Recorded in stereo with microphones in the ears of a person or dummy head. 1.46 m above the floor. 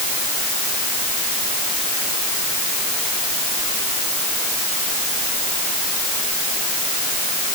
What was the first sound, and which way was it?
Only background noise.